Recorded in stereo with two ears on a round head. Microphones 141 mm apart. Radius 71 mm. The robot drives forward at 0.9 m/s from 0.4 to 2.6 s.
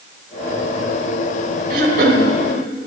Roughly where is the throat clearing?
Right.